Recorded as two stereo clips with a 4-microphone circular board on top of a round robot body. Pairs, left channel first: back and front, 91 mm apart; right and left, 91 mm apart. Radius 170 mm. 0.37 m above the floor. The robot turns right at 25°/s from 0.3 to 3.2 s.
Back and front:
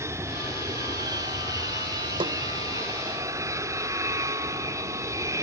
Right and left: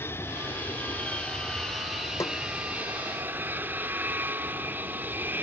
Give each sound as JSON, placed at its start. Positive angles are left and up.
{"t": 0.0, "sound": "an aircraft", "azimuth_deg": -40}
{"t": 2.2, "sound": "a snare drum", "azimuth_deg": -30}